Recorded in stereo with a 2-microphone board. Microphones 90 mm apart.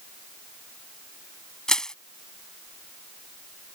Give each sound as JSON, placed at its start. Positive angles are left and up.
{"t": 1.7, "sound": "crushing", "side_deg": 5}